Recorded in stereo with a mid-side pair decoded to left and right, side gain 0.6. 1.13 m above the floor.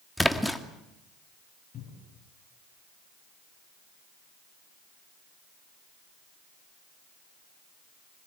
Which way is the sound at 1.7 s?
40° left.